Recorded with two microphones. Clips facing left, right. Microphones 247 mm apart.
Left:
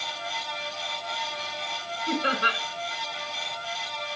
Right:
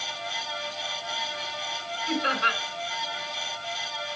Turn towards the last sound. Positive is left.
turn(degrees=35)  # may be behind; listen again after turning